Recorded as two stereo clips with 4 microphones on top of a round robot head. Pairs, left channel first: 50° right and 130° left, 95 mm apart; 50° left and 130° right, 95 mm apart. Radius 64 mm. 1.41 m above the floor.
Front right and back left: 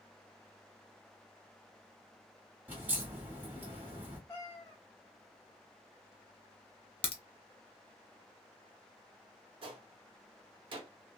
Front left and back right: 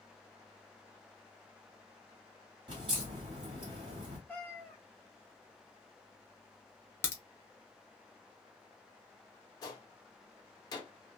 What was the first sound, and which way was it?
A crack, 160° right.